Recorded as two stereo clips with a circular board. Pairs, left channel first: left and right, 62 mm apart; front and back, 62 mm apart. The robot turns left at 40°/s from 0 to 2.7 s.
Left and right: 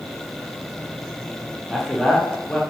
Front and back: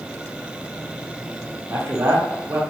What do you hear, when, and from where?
1.7 s a man speaking: 175° right, 0.6 m; by 2.6 s 150° left, 0.6 m